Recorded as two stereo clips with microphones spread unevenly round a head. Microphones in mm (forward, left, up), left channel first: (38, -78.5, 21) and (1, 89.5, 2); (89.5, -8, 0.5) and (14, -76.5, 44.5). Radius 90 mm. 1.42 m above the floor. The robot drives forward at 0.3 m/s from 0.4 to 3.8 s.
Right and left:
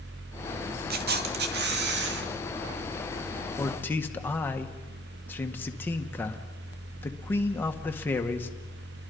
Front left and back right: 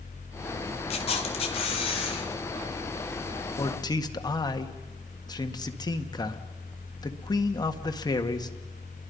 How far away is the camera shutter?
About 1.6 m.